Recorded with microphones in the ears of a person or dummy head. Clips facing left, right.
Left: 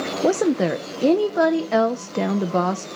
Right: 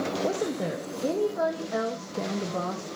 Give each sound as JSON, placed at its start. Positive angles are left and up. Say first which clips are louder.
{"t": 0.2, "sound": "a woman speaking", "louder": "left 14 dB", "side_deg": 85, "distance_m": 0.7}